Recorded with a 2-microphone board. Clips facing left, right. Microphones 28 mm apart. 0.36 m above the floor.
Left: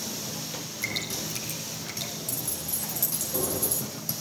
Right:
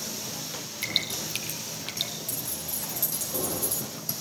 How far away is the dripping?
About 5.5 m.